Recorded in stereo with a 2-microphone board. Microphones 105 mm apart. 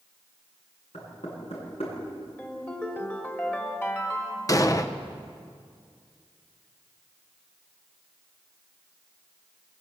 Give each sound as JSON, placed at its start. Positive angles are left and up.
{"t": 0.9, "sound": "knocking", "side_deg": 70, "distance_m": 10.0}
{"t": 2.4, "sound": "a ringtone", "side_deg": 20, "distance_m": 3.0}
{"t": 4.5, "sound": "an explosion", "side_deg": 35, "distance_m": 1.0}